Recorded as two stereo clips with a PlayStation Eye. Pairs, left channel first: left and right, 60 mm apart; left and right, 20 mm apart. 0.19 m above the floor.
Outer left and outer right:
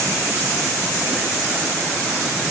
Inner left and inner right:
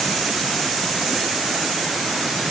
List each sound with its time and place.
Only background noise.